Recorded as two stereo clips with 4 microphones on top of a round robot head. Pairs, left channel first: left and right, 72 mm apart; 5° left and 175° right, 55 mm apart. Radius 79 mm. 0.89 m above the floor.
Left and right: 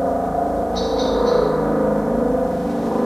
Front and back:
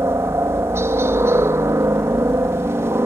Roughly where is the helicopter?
Behind.